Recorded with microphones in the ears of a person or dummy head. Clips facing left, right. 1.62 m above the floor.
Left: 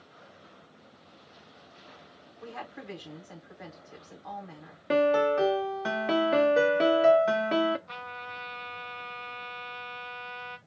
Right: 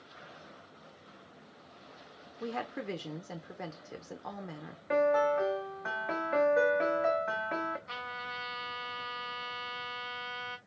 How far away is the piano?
About 0.6 m.